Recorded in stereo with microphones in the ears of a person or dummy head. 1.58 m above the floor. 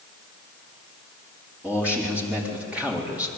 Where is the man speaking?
5° right (ahead or behind), 4.5 m.